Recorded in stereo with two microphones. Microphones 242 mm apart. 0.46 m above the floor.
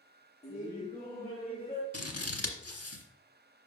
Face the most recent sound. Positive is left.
turn(degrees=80)